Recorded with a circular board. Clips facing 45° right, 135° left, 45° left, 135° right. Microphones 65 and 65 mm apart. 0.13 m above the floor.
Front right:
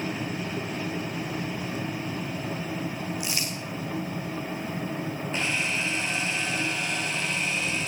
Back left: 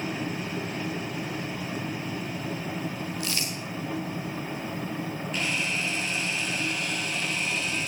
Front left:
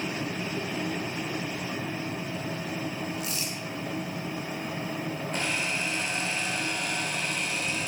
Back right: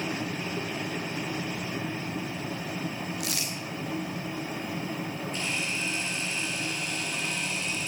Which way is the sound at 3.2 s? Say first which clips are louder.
Even, even; 120° right.